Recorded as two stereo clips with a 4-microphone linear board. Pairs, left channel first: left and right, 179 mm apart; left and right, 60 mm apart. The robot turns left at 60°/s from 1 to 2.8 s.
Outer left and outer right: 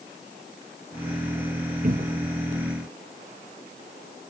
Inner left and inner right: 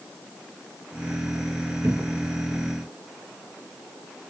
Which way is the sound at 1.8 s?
50° right (ahead or behind).